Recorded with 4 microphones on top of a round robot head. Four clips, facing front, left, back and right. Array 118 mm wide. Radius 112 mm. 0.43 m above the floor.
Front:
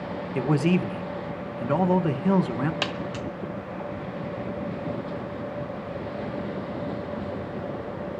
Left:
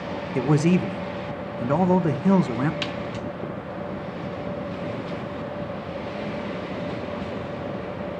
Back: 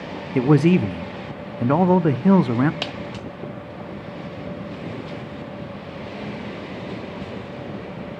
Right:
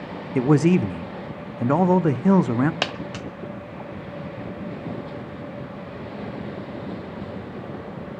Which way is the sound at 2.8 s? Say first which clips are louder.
Even, front 1 dB; 90° right.